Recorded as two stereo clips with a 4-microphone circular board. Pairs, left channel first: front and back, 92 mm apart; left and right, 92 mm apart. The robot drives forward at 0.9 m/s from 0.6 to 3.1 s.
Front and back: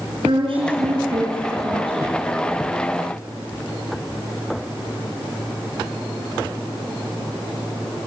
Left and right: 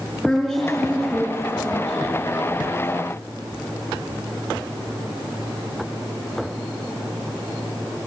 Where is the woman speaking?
Straight behind, 5 m.